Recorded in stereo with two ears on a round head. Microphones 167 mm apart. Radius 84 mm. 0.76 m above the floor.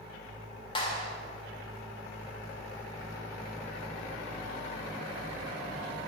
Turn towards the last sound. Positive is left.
turn(degrees=25)  # may be behind; listen again after turning